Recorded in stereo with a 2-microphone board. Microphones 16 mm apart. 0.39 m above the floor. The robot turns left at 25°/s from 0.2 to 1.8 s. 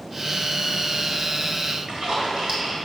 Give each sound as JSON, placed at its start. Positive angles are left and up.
{"t": 1.7, "sound": "a splash", "side_deg": -55, "distance_m": 2.0}